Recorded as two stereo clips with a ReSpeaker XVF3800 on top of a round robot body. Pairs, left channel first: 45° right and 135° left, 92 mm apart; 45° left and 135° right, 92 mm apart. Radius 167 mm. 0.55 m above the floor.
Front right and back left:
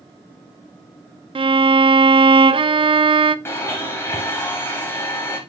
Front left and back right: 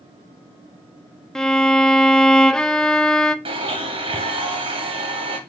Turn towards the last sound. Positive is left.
turn(degrees=-110)